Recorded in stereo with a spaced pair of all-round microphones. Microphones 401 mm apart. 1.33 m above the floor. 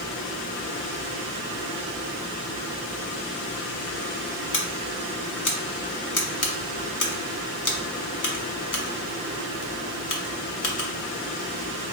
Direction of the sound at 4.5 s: 50° left (ahead or behind).